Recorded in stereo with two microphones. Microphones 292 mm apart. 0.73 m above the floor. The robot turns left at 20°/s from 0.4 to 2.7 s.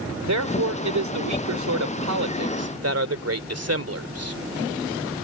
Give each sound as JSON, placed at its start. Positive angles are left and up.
{"t": 0.2, "sound": "a man speaking", "azimuth_deg": -75}